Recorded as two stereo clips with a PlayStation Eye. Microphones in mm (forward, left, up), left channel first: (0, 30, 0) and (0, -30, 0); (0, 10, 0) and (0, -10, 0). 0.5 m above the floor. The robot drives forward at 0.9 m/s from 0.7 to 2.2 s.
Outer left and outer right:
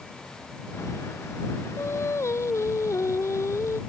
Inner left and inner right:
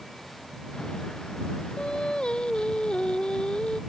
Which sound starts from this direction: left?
Singing, at 1.8 s.